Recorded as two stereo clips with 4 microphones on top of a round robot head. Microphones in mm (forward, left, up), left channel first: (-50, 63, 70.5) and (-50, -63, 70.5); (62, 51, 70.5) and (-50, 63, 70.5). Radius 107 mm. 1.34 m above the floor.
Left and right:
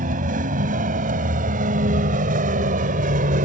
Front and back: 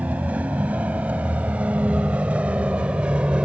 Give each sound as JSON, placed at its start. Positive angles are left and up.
{"t": 0.0, "sound": "a vehicle", "azimuth_deg": -105}